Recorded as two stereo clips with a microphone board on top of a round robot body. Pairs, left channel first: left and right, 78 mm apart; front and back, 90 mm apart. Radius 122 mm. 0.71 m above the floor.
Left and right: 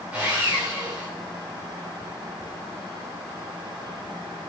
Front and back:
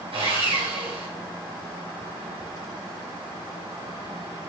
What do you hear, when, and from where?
0.1 s sawing: 165° right, 3.5 m